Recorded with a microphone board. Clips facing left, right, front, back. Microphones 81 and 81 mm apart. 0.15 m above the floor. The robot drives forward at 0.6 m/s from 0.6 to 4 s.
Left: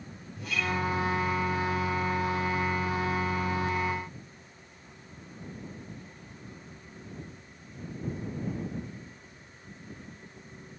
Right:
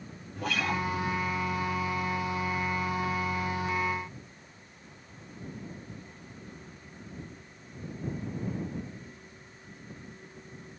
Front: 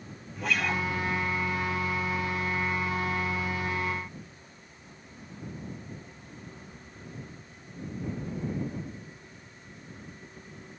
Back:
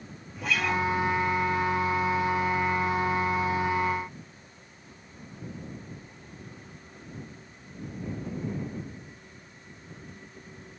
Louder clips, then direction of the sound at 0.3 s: Right 1 dB, back 2 dB; 90° right.